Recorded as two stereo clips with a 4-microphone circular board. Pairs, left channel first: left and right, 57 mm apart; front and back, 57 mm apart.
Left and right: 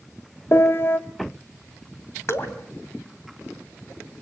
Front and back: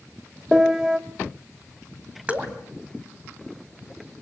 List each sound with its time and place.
0.5 s a piano: 105° left, 0.9 m
2.3 s dripping: 120° left, 2.5 m